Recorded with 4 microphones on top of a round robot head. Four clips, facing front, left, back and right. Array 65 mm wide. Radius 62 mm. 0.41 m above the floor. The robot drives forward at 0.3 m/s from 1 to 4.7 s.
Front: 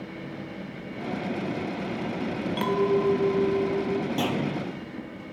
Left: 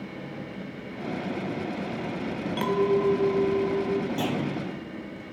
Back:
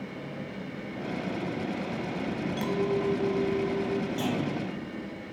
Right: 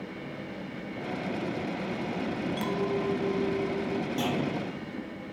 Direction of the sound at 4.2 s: 10° left.